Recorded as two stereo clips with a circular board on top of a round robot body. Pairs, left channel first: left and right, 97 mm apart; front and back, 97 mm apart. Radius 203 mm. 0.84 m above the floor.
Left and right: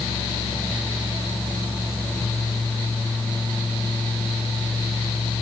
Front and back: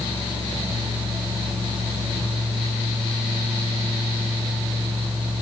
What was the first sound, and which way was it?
Only background noise.